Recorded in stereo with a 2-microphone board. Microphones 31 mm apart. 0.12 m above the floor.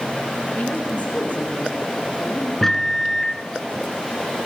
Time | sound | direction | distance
0.6 | a woman speaking | 60° left (ahead or behind) | 8.5 m
2.6 | a microwave | 10° left (ahead or behind) | 0.9 m